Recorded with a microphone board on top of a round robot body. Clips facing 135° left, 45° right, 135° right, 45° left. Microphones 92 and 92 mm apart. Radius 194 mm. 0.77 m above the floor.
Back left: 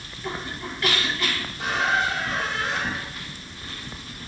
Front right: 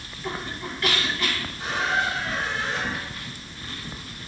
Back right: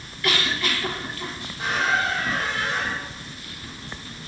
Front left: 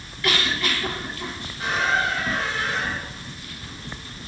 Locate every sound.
1.6 s a squeak: 155° left, 0.8 m